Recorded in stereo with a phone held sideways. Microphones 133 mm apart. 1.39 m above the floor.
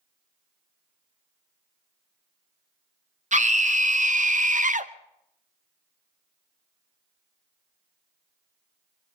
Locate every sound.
3.3 s a scream: 65° right (ahead or behind), 1.5 m; by 4.9 s 70° right (ahead or behind), 0.9 m